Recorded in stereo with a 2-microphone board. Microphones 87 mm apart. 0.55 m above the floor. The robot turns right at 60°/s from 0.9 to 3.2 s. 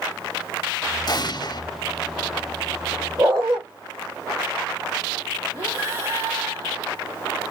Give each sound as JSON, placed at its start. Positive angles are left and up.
{"t": 1.1, "sound": "an explosion", "azimuth_deg": 75, "distance_m": 0.8}
{"t": 3.2, "sound": "a dog barking", "side_deg": -40, "distance_m": 7.5}
{"t": 5.5, "sound": "breathing", "side_deg": -30, "distance_m": 3.5}